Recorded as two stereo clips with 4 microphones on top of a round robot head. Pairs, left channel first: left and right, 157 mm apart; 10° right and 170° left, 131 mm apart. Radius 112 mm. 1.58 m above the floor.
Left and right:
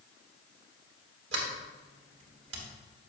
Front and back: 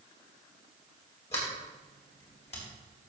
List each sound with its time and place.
1.3 s a sliding door: 70° right, 1.7 m